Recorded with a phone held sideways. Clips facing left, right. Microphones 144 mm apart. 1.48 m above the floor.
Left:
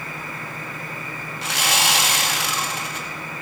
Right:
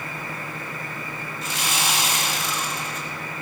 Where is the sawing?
75° left (ahead or behind), 1.9 m.